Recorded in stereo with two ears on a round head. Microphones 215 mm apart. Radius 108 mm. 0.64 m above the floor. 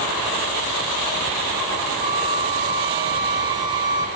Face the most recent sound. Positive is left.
turn(degrees=-20)  # may be behind; listen again after turning